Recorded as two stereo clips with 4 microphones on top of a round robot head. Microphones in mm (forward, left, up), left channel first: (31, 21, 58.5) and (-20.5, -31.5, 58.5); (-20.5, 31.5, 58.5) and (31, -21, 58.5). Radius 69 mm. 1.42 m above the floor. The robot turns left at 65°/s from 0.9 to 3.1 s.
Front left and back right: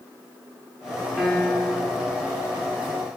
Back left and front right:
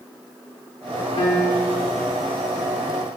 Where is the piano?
140° left, 0.7 m; by 1.9 s 95° left, 0.7 m.